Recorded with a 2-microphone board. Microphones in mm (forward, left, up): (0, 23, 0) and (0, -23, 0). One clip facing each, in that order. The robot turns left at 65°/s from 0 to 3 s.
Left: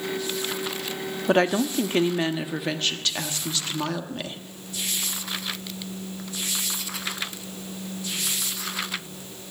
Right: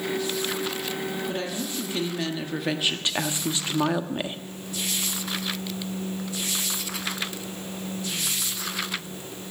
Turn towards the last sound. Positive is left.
turn(degrees=-20)